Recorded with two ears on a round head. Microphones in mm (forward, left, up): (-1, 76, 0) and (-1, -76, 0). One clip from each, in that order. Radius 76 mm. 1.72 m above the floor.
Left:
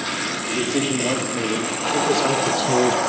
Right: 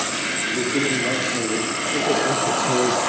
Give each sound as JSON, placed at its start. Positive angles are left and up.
{"t": 0.5, "sound": "a man speaking", "side_deg": 65, "distance_m": 5.0}